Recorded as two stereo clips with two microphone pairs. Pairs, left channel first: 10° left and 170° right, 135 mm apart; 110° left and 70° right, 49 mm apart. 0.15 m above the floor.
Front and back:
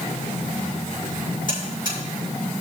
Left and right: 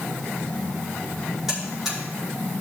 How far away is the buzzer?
About 4.5 m.